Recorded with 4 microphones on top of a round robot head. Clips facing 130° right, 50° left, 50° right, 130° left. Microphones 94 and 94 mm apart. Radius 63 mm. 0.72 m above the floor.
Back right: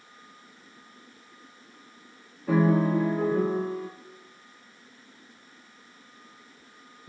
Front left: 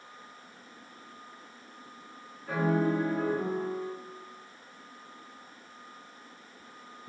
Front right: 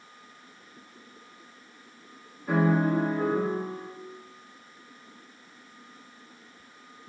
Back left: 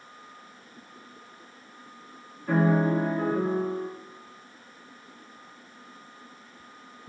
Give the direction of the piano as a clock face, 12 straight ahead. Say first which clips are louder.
Back right 5 dB, back left 1 dB; 4 o'clock.